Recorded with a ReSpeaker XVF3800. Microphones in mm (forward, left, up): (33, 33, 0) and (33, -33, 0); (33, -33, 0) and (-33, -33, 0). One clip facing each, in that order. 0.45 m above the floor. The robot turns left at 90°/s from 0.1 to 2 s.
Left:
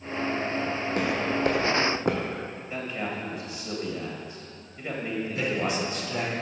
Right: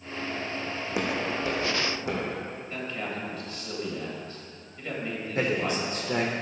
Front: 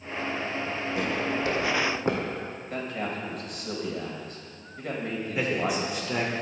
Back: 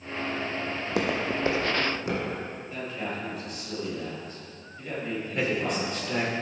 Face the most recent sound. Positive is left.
turn(degrees=-80)